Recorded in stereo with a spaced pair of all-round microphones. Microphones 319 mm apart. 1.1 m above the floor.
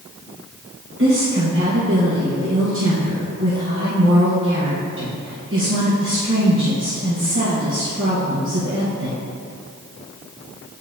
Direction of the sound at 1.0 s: 40° right (ahead or behind).